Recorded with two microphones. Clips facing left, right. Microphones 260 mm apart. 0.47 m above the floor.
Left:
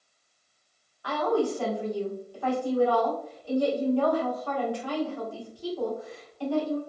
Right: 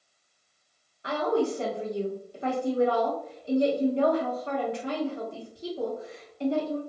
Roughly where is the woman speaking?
Right.